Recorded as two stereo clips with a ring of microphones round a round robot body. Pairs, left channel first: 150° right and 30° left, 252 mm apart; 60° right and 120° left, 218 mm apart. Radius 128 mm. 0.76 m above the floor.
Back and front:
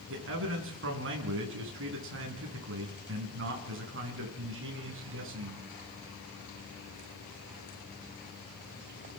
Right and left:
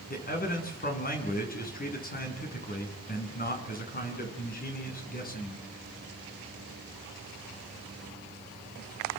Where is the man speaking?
10° right, 7.5 m.